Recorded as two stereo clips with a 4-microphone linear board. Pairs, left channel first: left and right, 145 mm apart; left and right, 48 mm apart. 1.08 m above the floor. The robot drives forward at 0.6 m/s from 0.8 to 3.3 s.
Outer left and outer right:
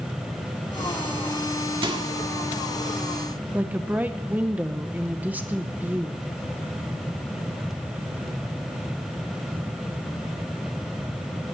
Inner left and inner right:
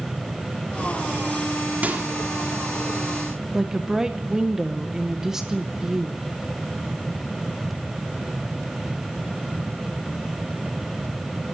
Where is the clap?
No clap in this recording.